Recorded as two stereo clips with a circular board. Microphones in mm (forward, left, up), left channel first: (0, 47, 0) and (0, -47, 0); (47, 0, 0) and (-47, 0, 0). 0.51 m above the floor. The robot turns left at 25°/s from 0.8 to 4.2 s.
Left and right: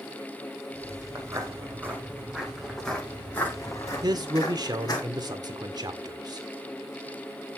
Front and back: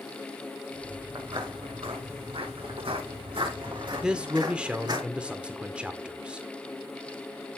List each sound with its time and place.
1.1 s footsteps: 145° right, 5 m; by 5.0 s 140° left, 7.5 m
4.0 s a man speaking: 100° right, 1.6 m; by 6.5 s 105° right, 1.6 m